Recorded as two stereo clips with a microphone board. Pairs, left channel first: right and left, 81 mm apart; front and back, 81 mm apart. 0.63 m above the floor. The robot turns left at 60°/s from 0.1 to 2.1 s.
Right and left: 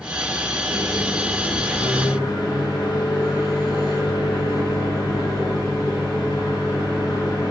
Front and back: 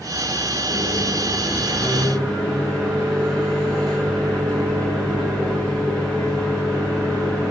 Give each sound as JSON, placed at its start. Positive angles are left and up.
{"t": 0.7, "sound": "a microwave", "azimuth_deg": 5, "distance_m": 0.8}